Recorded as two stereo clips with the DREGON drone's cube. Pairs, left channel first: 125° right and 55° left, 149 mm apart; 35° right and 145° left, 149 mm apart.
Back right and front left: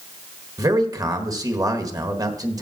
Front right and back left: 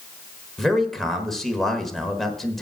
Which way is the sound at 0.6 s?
50° left.